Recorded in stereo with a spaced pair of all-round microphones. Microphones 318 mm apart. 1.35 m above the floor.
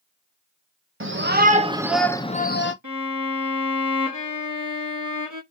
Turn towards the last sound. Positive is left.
turn(degrees=-80)